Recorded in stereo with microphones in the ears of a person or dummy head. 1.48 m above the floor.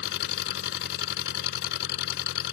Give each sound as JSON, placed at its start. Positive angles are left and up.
{"t": 0.0, "sound": "an engine running", "side_deg": 65}